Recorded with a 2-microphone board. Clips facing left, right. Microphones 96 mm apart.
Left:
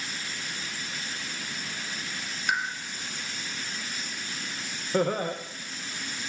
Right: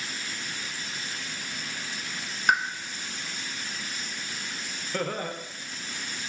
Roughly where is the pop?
Right.